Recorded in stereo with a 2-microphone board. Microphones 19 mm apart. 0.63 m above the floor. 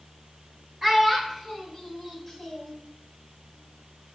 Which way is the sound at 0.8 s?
10° right (ahead or behind).